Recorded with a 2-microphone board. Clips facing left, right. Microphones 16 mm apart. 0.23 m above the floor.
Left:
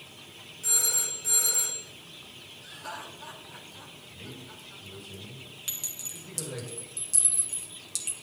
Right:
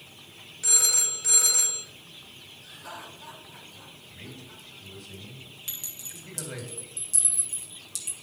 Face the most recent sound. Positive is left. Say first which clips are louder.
# left 3 dB
turn(degrees=15)  # may be behind; listen again after turning